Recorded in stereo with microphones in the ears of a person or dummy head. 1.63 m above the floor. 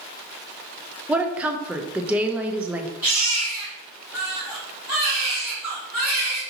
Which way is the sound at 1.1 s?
10° right (ahead or behind).